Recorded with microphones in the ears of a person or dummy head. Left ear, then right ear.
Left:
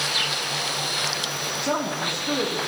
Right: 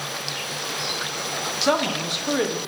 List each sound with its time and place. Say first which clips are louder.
1.6 s a woman speaking: right 5 dB; 35° right (ahead or behind), 1.0 m